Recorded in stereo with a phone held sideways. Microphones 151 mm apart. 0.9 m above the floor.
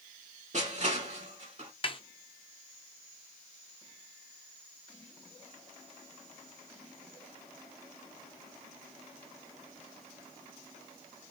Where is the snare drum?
35° left (ahead or behind), 0.5 m.